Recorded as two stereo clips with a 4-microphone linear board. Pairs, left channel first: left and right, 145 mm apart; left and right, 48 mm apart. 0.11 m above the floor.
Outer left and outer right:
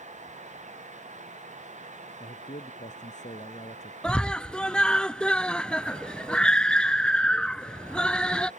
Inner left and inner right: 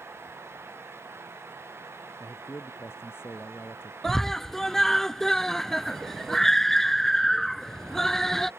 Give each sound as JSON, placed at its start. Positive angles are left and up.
{"t": 2.2, "sound": "a man speaking", "side_deg": 60}
{"t": 4.0, "sound": "a scream", "side_deg": 5}